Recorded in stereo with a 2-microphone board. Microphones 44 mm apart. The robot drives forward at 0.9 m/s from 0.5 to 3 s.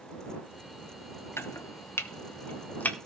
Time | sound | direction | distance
1.4 | chopping | 75° left (ahead or behind) | 1.1 m